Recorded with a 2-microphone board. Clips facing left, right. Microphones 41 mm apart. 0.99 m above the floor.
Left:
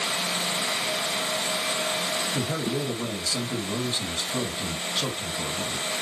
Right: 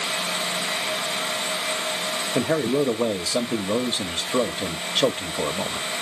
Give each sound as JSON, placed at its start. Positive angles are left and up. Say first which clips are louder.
{"t": 2.4, "sound": "a man speaking", "louder": "right 6 dB", "side_deg": -80, "distance_m": 0.7}